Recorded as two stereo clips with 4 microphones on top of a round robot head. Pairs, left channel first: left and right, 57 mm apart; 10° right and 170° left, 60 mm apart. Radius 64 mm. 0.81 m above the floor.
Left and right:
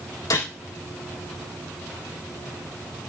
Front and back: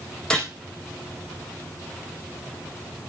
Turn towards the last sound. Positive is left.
turn(degrees=70)